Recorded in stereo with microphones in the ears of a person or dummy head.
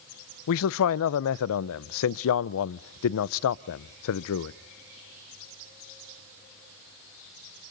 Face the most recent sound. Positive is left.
turn(degrees=65)  # may be behind; listen again after turning